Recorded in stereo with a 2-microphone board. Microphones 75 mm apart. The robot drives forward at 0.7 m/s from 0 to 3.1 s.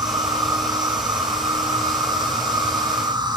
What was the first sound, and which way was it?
An insect, 60° right (ahead or behind).